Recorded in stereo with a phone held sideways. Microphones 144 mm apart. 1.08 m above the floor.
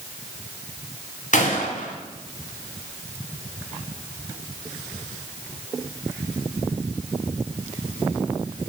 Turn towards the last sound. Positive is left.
turn(degrees=60)  # may be behind; listen again after turning